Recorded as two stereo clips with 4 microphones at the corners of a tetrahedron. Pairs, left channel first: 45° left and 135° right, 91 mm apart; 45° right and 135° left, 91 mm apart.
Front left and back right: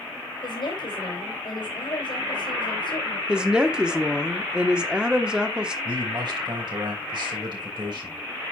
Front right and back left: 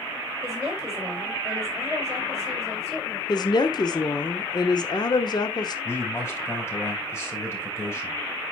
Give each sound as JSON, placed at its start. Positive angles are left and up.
{"t": 0.4, "sound": "a woman speaking", "azimuth_deg": 45, "distance_m": 2.5}
{"t": 3.3, "sound": "a woman speaking", "azimuth_deg": -55, "distance_m": 1.1}
{"t": 5.8, "sound": "a man speaking", "azimuth_deg": -105, "distance_m": 3.5}